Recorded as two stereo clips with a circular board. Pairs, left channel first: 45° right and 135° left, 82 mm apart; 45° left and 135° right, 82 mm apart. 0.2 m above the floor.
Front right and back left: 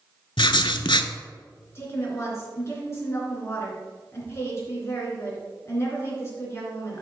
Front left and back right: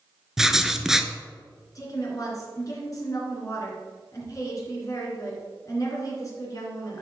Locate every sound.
0.4 s writing: 50° right, 0.5 m
1.8 s a woman speaking: 5° left, 3 m